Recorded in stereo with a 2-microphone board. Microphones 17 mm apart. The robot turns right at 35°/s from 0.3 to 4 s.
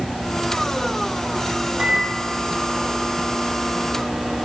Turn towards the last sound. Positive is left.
turn(degrees=-5)